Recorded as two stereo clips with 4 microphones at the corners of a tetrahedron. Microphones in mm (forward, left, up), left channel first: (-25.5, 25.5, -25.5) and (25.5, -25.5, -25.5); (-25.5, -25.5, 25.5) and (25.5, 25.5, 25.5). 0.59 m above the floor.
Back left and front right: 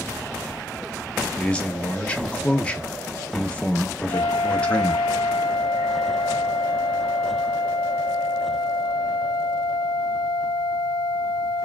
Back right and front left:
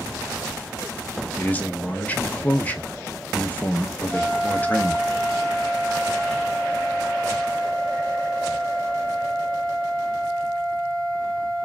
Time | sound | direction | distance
1.4 | a man speaking | 175° right | 0.8 m
4.1 | a flute | 150° left | 0.8 m